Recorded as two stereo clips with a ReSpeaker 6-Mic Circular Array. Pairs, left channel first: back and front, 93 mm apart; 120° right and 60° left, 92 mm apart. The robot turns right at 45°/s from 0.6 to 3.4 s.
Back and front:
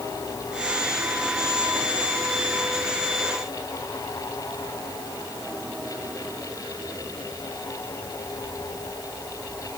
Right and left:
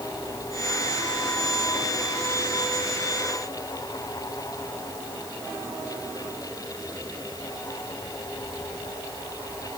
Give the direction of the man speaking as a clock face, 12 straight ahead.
No man speaking in this recording.